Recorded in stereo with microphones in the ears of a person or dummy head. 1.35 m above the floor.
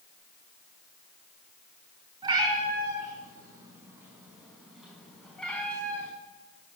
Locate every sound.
2.2 s a cat meowing: 25° right (ahead or behind), 5 m; by 6.1 s 10° left (ahead or behind), 4.5 m